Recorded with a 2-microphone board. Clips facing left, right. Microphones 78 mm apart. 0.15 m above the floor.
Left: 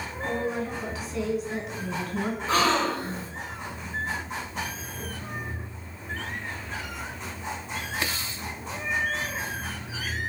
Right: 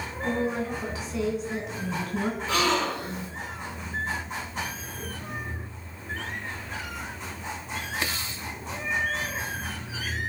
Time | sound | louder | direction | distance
0.2 | a woman speaking | right 2 dB | centre (ahead or behind) | 1.1 m
2.5 | a gasp | left 3 dB | 35° left (ahead or behind) | 0.9 m